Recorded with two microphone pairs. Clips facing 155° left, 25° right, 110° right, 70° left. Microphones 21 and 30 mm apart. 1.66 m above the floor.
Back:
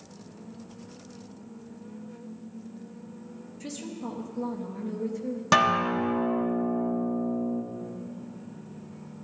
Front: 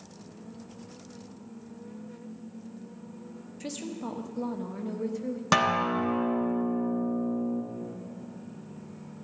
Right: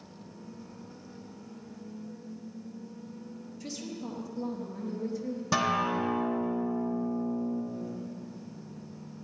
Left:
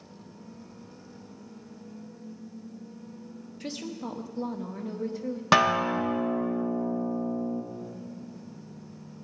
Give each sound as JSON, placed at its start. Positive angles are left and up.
{"t": 3.6, "sound": "a woman speaking", "azimuth_deg": 40, "distance_m": 0.8}
{"t": 5.5, "sound": "a guitar", "azimuth_deg": 65, "distance_m": 1.1}